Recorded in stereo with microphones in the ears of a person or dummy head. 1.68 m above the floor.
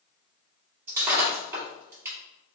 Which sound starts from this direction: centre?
Breaking glass, at 0.9 s.